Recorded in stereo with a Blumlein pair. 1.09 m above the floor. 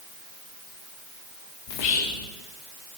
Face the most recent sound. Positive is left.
turn(degrees=45)